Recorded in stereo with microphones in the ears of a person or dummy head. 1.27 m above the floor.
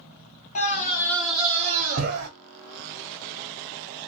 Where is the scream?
35° left (ahead or behind), 1.0 m; by 2.3 s 75° right (ahead or behind), 0.9 m.